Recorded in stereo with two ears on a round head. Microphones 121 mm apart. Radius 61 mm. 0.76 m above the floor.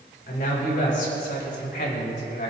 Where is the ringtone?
I don't hear a ringtone.